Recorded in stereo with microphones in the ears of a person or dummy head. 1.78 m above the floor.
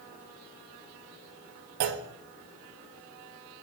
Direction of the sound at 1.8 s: 50° right (ahead or behind).